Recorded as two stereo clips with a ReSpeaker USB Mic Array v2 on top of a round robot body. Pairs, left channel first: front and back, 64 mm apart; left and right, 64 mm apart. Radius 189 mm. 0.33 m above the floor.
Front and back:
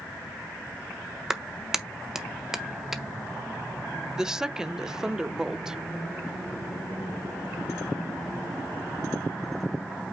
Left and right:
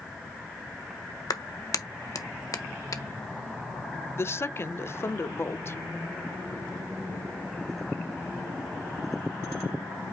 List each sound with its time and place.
1.3 s a clap: 100° left, 1.5 m
4.2 s a woman speaking: 105° left, 1.1 m